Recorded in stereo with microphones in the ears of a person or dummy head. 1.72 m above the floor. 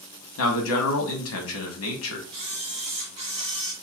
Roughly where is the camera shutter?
Right.